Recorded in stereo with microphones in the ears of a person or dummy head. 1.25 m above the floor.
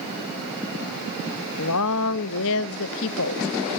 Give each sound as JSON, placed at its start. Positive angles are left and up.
{"t": 1.6, "sound": "a woman speaking", "side_deg": 65, "distance_m": 1.0}